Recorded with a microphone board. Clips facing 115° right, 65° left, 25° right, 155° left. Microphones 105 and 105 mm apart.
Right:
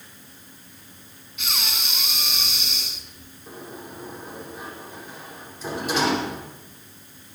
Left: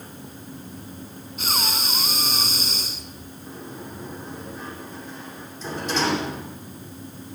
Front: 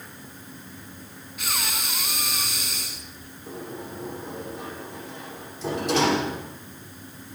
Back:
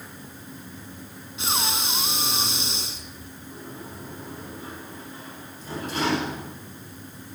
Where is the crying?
I don't hear crying.